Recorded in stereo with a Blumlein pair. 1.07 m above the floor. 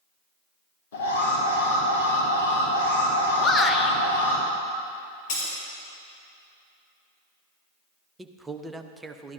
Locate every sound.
0.9 s an alarm: 60° left, 2.5 m
3.4 s a shout: 20° left, 0.8 m
5.3 s breaking glass: 45° left, 3.5 m
8.2 s a man speaking: 10° right, 0.6 m